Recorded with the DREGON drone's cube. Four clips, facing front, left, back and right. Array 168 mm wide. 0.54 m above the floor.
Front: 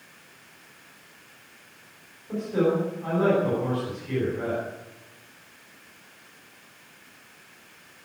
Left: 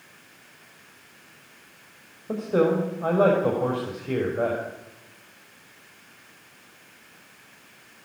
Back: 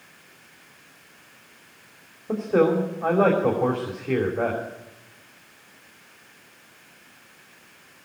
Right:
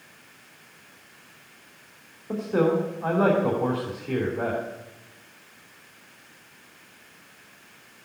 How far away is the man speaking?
About 3 m.